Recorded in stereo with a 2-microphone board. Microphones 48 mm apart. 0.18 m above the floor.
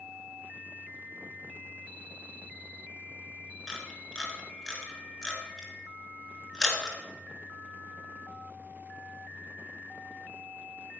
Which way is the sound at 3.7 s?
15° left (ahead or behind).